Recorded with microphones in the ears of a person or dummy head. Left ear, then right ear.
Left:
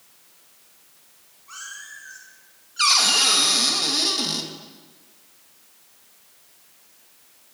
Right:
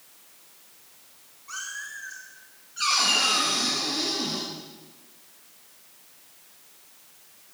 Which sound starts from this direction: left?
A cupboard door, at 2.8 s.